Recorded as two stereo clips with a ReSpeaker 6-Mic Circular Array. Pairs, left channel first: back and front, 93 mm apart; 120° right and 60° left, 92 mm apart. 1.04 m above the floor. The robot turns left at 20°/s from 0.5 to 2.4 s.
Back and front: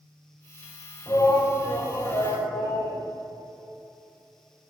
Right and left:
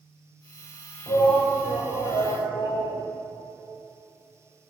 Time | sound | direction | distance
1.1 | a shout | 125° right | 5 m